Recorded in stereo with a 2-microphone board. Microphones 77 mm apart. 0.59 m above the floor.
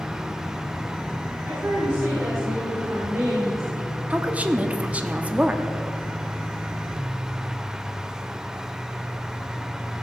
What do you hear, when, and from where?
1.4 s a woman speaking: 50° right (ahead or behind), 5 m; by 4.0 s 45° right (ahead or behind), 1.5 m
4.1 s a woman speaking: 20° right (ahead or behind), 0.9 m